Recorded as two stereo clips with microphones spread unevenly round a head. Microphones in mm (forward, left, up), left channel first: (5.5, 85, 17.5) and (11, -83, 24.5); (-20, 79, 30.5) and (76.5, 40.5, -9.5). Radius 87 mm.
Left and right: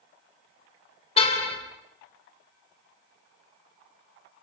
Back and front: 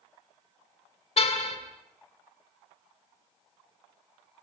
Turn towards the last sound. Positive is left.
turn(degrees=150)